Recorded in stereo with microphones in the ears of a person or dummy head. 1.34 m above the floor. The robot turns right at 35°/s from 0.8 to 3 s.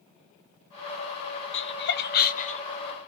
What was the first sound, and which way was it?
Laughter, 55° left (ahead or behind).